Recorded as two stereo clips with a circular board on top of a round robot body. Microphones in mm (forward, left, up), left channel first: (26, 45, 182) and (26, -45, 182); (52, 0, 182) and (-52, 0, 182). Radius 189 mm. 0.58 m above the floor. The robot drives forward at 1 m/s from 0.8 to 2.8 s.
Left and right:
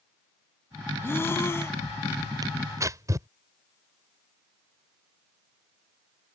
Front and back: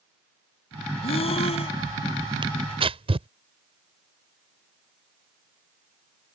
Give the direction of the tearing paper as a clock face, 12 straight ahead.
5 o'clock.